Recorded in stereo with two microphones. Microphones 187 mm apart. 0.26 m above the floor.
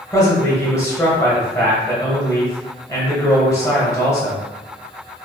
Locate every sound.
0.1 s a man speaking: 15° left (ahead or behind), 1.0 m